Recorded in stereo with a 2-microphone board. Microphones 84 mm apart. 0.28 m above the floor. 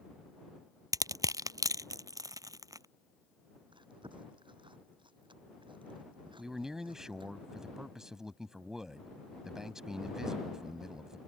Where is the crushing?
45° right (ahead or behind).